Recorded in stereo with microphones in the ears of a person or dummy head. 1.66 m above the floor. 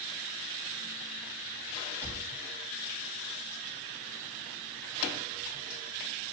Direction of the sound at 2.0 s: 15° right (ahead or behind).